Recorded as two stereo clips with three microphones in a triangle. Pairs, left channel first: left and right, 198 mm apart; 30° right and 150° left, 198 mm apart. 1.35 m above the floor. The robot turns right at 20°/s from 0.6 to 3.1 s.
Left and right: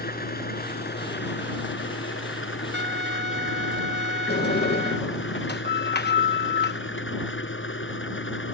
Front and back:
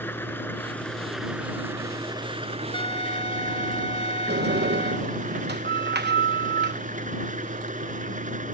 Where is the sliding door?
120° left.